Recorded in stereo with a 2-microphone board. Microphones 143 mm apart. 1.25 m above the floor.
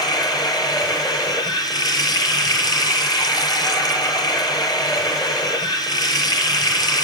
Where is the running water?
25° left (ahead or behind), 5.5 m.